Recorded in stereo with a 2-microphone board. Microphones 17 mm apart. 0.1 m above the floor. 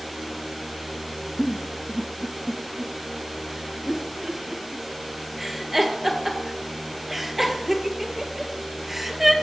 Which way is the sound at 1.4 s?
15° right (ahead or behind).